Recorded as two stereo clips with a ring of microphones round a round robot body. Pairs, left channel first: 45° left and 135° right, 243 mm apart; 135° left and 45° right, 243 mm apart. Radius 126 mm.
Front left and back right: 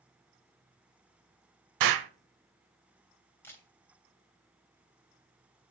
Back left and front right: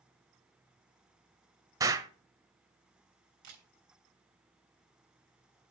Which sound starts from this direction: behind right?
An explosion, at 1.8 s.